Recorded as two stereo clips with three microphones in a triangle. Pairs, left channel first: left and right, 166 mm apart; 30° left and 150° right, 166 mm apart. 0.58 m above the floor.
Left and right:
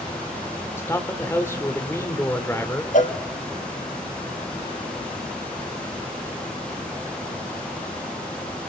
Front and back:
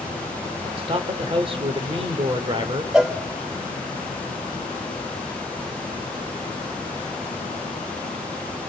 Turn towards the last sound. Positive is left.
turn(degrees=125)